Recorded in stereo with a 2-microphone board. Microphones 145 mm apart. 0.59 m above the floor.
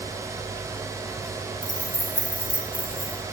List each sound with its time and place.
1.6 s keys jangling: 25° right (ahead or behind), 1.9 m; by 3.2 s 45° right (ahead or behind), 2.5 m